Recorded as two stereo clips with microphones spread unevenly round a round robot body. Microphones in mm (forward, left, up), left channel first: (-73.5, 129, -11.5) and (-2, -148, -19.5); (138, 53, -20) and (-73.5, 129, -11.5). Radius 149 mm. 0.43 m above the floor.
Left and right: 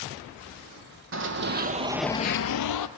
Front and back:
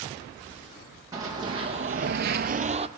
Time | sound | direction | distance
1.1 | running footsteps | 120° right | 1.3 m